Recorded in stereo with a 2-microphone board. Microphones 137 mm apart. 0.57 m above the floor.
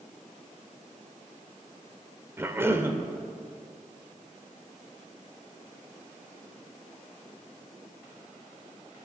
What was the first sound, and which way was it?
A cough, 15° right (ahead or behind).